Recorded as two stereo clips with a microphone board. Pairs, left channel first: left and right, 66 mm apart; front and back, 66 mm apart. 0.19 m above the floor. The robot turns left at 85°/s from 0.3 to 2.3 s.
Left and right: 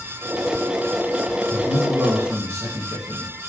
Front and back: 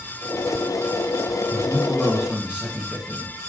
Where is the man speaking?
40° right, 1.9 m; by 3.3 s 110° right, 1.9 m.